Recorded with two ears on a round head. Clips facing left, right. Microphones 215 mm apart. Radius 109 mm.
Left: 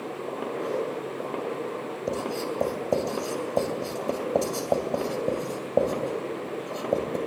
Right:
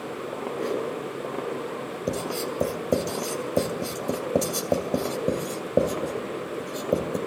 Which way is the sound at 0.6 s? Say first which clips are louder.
Right 2 dB; 40° right (ahead or behind).